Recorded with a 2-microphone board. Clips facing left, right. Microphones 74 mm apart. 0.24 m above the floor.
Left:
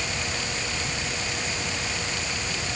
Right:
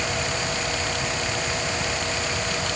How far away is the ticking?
No ticking in this recording.